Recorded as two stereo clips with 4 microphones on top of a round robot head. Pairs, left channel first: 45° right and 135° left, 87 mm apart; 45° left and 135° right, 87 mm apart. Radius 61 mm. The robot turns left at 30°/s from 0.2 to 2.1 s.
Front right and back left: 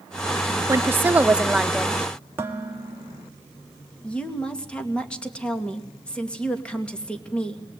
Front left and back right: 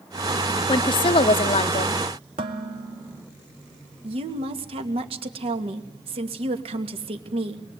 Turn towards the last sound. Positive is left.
turn(degrees=-125)